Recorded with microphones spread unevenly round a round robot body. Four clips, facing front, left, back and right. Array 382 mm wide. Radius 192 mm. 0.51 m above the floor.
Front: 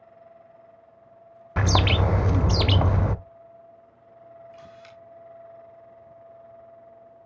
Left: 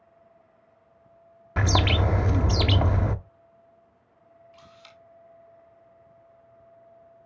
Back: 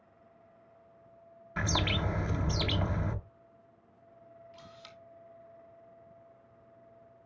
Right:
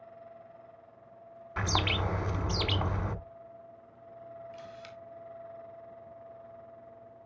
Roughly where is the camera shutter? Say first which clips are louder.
Right 6 dB, front 7 dB; behind right.